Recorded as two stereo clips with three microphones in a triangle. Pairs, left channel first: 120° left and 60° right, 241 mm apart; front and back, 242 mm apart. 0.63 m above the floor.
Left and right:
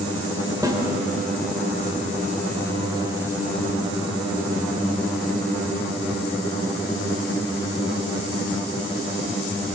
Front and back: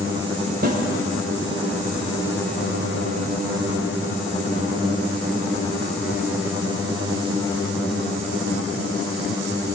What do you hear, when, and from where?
0.6 s a snare drum: 135° right, 2.5 m